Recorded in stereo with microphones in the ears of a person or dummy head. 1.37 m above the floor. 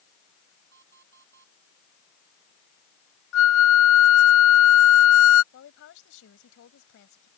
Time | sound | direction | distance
0.7 | an alarm clock | 55° right (ahead or behind) | ?
3.3 | a flute | 65° left (ahead or behind) | ?
5.5 | a woman speaking | 65° left (ahead or behind) | ?